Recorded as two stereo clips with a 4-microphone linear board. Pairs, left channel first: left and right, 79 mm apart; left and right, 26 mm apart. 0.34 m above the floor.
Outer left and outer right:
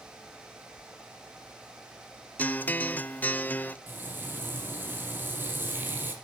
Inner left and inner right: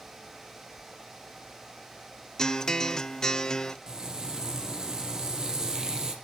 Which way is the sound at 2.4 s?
20° left (ahead or behind).